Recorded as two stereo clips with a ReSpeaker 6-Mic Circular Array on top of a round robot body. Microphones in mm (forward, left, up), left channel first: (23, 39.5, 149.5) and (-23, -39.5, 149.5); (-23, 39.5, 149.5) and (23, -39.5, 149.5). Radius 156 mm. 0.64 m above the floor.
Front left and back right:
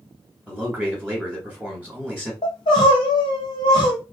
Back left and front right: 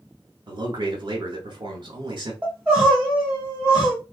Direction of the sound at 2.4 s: 20° left.